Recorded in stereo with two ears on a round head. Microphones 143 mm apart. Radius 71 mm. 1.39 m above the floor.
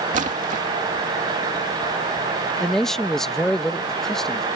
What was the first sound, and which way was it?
A splash, 50° right (ahead or behind).